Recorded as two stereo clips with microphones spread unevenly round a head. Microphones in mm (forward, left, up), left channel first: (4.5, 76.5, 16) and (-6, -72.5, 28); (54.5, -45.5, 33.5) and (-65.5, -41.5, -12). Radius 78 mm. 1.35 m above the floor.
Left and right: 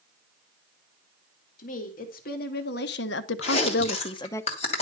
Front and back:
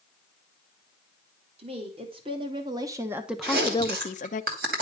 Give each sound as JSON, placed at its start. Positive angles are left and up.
{"t": 1.6, "sound": "a woman speaking", "azimuth_deg": 125, "distance_m": 2.0}
{"t": 3.4, "sound": "chewing", "azimuth_deg": 135, "distance_m": 2.5}